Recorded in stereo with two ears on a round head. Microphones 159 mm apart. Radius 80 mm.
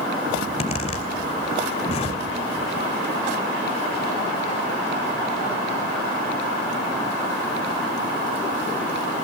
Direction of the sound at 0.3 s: 35° left (ahead or behind).